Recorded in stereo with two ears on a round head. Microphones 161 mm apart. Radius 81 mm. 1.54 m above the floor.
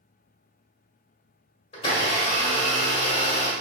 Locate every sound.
1.7 s a blender: 35° left (ahead or behind), 1.6 m